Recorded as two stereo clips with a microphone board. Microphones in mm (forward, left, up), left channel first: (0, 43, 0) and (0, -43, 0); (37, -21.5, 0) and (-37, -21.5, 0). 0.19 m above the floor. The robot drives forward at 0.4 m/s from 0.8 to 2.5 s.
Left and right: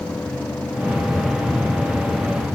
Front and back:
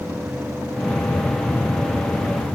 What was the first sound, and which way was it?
Only background noise.